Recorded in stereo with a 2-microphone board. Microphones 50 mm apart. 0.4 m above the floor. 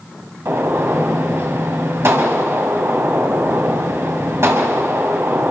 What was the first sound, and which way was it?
A gunshot, 55° right (ahead or behind).